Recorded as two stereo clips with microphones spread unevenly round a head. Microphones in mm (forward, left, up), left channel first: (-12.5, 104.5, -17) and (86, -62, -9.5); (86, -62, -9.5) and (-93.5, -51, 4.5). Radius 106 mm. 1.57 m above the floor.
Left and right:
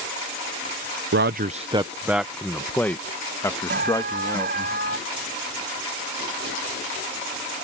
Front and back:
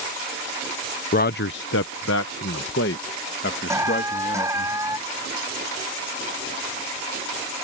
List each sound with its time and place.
1.1 s a man speaking: 45° right; by 4.7 s 50° left
3.7 s an alarm: 110° right